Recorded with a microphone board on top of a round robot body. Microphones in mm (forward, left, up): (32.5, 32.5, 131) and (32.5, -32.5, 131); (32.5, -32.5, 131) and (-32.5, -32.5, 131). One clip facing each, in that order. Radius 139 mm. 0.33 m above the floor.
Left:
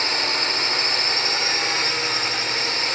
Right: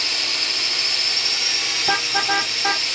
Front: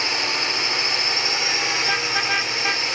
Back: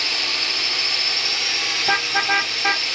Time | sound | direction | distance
0.0 | a drone | 60° left | ?
1.8 | a car horn | 115° right | ?